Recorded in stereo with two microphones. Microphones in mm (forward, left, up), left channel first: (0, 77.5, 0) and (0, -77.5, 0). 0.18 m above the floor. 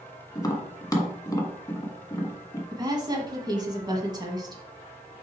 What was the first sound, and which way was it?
Tapping, 25° left (ahead or behind).